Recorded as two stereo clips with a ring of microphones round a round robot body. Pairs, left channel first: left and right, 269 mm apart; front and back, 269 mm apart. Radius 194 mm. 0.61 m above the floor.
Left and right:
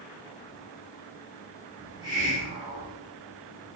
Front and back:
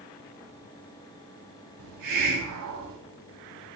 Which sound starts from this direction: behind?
A hiss, at 1.8 s.